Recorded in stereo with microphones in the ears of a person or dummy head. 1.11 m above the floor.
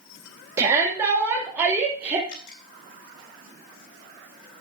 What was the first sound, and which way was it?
A shout, 20° right (ahead or behind).